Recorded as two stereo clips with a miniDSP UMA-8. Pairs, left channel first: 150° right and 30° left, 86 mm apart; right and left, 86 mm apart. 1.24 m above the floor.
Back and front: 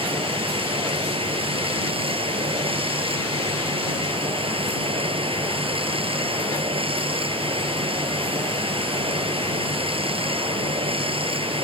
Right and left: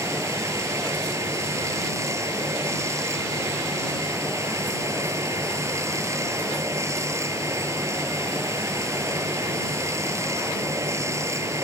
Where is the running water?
30° left.